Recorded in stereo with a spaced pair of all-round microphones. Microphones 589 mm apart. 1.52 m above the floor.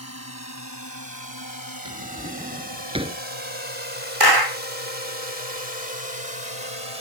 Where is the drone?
25° left (ahead or behind); by 7.0 s 55° left (ahead or behind).